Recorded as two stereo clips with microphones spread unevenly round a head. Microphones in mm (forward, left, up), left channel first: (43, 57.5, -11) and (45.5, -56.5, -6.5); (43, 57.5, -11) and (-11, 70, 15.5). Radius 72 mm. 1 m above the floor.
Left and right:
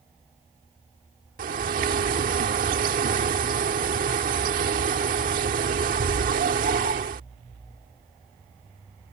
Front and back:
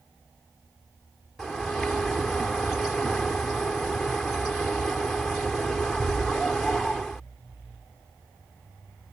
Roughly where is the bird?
Right.